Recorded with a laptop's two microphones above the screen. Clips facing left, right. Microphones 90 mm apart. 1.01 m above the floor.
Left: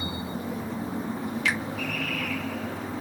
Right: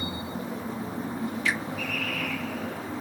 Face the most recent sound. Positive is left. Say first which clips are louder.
# left 1 dB
turn(degrees=75)  # may be behind; listen again after turning